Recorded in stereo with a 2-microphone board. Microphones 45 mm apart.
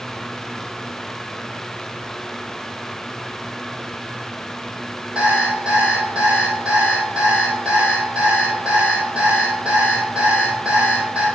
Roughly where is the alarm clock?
Right.